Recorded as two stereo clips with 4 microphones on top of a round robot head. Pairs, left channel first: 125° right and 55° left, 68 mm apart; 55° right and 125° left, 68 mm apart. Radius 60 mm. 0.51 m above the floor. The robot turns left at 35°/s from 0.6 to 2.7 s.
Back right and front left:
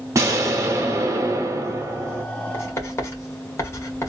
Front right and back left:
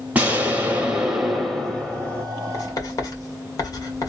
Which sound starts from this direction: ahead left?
An explosion, at 0.1 s.